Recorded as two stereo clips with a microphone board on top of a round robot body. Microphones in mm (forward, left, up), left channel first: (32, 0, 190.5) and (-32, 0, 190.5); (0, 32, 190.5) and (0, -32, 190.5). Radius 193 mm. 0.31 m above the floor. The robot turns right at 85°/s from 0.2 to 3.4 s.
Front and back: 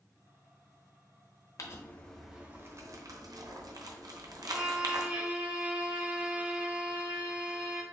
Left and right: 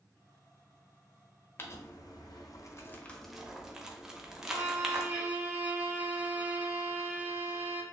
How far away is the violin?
About 1.6 m.